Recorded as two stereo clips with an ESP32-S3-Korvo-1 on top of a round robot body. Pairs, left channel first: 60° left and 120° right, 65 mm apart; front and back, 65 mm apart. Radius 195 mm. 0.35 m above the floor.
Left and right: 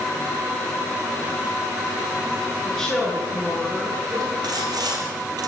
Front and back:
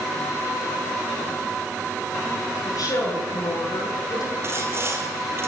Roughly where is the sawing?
Behind right.